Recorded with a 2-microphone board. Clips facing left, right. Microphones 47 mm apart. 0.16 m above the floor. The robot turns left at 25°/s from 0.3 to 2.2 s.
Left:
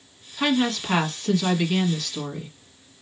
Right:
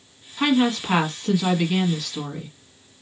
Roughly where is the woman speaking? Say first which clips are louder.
Right 3 dB; centre.